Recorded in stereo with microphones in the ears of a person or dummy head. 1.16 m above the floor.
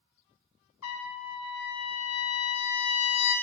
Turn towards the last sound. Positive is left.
turn(degrees=80)